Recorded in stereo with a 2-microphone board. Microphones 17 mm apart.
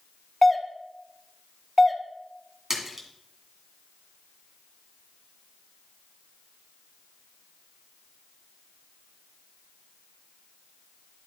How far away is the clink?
No clink in this recording.